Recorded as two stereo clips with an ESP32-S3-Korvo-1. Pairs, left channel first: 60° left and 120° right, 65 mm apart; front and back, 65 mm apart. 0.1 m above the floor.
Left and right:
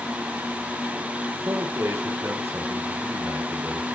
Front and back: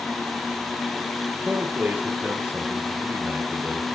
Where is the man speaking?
130° right, 1.6 m.